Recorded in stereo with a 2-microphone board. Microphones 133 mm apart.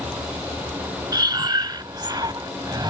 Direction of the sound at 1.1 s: 30° right (ahead or behind).